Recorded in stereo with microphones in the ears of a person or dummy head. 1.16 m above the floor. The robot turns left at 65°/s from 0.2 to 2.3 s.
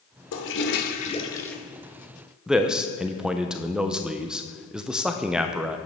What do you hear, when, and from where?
0.3 s a toilet flushing: 80° left, 1.0 m; by 1.6 s straight ahead, 1.0 m
2.5 s a man speaking: centre (ahead or behind), 0.5 m